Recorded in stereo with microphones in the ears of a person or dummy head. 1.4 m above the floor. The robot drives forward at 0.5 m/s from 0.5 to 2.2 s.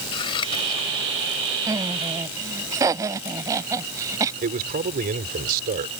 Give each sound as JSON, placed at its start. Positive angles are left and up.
{"t": 0.1, "sound": "scissors", "side_deg": 25}
{"t": 1.7, "sound": "laughter", "side_deg": -20}
{"t": 4.4, "sound": "a man speaking", "side_deg": -50}